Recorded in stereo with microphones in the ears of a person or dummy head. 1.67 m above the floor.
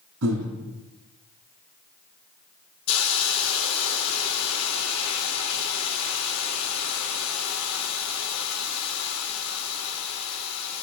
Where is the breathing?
85° right, 3 m.